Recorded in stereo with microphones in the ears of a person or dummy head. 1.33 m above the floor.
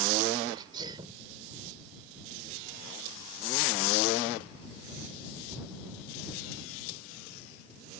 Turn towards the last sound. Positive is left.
turn(degrees=-30)  # may be behind; listen again after turning